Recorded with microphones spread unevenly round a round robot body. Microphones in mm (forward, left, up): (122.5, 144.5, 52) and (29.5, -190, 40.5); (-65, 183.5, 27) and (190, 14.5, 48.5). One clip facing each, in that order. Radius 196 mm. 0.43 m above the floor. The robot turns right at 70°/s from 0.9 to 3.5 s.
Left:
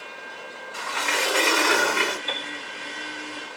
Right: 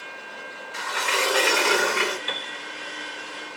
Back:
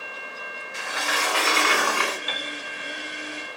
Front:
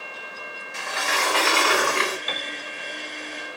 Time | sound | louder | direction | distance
0.7 | a sliding door | right 2 dB, front 1 dB | 45° right | 1.2 m
2.3 | a piano | left 2 dB, front 1 dB | 35° right | 0.5 m